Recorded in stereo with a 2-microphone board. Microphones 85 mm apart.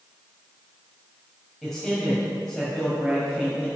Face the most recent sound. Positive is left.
turn(degrees=0)  # may be behind; listen again after turning